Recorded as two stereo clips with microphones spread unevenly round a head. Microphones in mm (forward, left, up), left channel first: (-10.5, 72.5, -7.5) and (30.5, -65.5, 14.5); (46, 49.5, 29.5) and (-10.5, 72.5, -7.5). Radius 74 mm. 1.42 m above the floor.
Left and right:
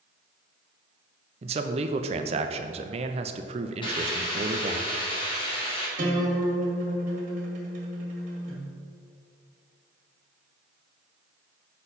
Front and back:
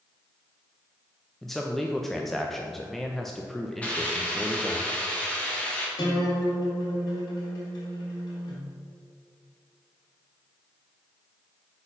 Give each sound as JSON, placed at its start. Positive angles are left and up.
{"t": 1.4, "sound": "a man speaking", "azimuth_deg": -125, "distance_m": 0.6}
{"t": 3.8, "sound": "a hiss", "azimuth_deg": 50, "distance_m": 2.0}
{"t": 6.0, "sound": "a guitar", "azimuth_deg": -35, "distance_m": 1.9}